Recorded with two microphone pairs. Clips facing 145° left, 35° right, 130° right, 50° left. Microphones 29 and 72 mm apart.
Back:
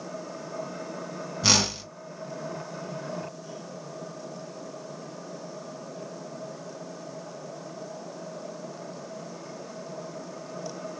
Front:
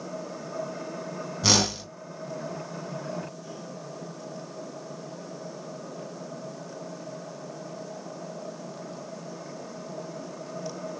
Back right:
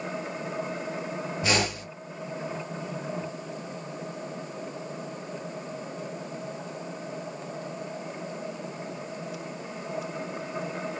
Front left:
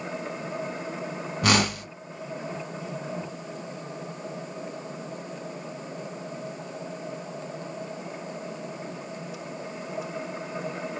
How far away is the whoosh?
About 1.9 m.